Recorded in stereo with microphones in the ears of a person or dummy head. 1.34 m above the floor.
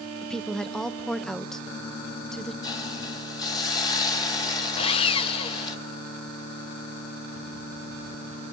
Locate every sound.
0.2 s a woman speaking: 5° left (ahead or behind), 0.6 m
2.6 s a hiss: 25° left (ahead or behind), 1.6 m
4.8 s sawing: 30° left (ahead or behind), 0.7 m